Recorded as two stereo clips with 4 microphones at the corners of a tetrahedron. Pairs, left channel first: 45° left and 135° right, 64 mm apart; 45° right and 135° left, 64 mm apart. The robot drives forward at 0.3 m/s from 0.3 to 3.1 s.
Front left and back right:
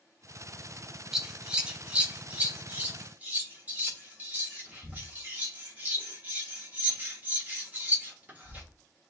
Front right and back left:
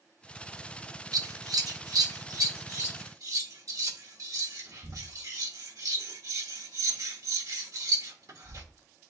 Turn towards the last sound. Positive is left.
turn(degrees=165)